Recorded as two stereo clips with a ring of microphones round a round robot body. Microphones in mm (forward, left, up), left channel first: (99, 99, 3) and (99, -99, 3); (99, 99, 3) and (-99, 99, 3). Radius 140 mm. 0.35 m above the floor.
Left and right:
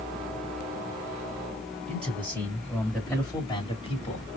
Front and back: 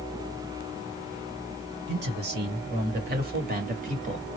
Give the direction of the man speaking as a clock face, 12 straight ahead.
5 o'clock.